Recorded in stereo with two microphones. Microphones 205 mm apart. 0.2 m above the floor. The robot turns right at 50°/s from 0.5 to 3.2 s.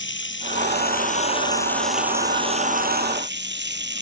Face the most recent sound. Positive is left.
turn(degrees=-115)